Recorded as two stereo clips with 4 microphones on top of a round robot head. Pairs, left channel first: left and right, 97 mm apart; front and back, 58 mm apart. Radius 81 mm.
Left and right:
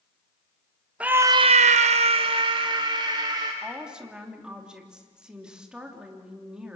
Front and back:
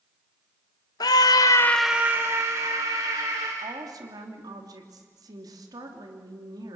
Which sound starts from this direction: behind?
A woman speaking, at 3.6 s.